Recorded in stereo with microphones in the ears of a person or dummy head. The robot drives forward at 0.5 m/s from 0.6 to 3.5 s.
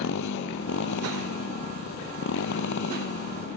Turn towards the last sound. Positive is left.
turn(degrees=60)  # may be behind; listen again after turning